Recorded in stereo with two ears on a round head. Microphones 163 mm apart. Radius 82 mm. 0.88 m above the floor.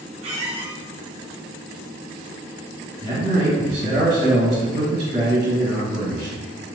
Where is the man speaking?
35° right (ahead or behind), 0.9 m.